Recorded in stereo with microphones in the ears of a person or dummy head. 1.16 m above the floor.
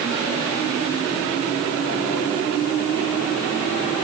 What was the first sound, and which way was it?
Only background noise.